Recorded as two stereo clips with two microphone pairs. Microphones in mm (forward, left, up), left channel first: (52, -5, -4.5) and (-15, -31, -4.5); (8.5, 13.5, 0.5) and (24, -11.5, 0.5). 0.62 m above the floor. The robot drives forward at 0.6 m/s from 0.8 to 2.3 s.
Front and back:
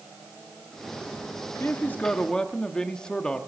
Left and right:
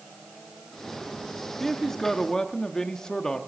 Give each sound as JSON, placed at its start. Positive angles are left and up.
{"t": 1.6, "sound": "a man speaking", "azimuth_deg": 40, "distance_m": 1.0}